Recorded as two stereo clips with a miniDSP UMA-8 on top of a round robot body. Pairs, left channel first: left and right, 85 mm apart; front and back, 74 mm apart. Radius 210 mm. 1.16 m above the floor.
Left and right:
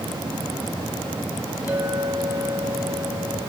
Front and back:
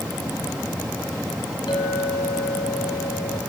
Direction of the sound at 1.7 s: 15° right.